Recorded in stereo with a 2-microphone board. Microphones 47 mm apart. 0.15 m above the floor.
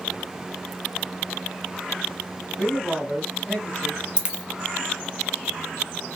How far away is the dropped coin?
About 0.6 m.